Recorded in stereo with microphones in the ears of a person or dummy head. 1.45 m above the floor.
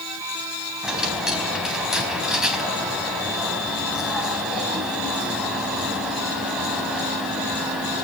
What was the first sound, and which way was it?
A dropped coin, centre (ahead or behind).